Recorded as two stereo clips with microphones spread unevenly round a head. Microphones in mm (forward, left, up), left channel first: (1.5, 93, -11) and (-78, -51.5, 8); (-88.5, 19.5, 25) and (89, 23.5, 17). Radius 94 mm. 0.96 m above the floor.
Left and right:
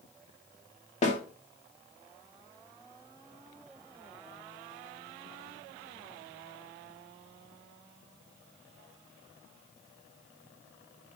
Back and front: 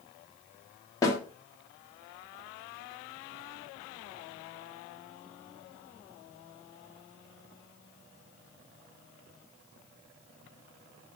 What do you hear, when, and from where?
1.0 s a snare drum: 110° left, 2.0 m